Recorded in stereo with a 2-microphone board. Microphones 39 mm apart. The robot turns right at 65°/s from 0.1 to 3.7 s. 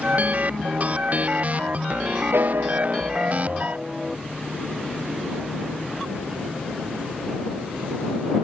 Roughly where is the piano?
Right.